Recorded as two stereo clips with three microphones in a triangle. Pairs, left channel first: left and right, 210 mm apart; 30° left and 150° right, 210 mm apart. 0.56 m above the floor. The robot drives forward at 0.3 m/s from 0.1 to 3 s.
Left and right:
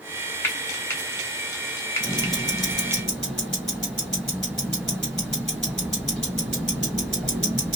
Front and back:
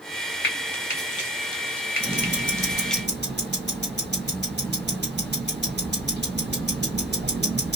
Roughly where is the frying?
Ahead.